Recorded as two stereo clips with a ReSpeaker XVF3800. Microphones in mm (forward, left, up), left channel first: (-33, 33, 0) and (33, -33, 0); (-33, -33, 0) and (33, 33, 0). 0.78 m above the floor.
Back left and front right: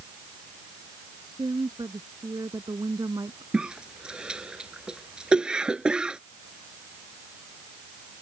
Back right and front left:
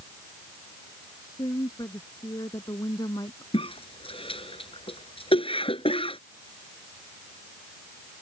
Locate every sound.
1.2 s a woman speaking: 90° right; by 3.4 s 95° right
3.5 s a cough: 125° right